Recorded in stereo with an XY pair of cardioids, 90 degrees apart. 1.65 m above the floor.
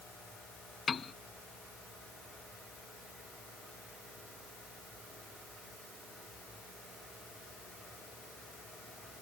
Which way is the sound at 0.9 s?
35° left.